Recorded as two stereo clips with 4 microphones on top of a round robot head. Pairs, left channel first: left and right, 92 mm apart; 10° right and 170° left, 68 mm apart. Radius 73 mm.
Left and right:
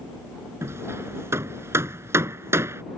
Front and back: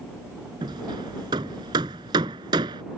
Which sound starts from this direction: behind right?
Hammering, at 0.6 s.